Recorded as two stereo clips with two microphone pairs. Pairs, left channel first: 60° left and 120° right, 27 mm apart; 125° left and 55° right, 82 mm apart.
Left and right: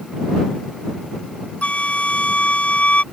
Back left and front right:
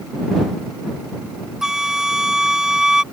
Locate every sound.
1.6 s a flute: 30° left